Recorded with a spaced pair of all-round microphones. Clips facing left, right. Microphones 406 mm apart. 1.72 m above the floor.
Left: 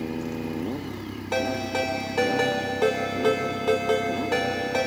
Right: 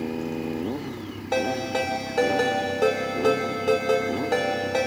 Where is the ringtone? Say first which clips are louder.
Right 2 dB; 15° left (ahead or behind), 2 m.